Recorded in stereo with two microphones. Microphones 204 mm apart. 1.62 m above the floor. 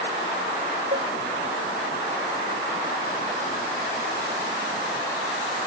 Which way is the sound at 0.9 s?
50° right (ahead or behind).